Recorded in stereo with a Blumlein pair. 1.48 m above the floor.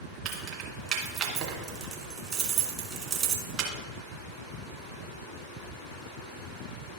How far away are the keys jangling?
About 2 m.